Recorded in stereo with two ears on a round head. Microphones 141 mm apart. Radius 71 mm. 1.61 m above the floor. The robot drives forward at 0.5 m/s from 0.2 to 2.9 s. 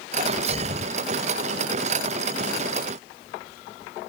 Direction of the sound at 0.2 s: 40° right (ahead or behind).